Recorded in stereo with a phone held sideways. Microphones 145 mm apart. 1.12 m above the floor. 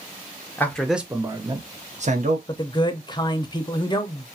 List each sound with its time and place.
0.6 s a man speaking: 15° left (ahead or behind), 0.6 m; by 2.4 s 60° right (ahead or behind), 0.9 m
2.5 s a man speaking: 30° left (ahead or behind), 0.5 m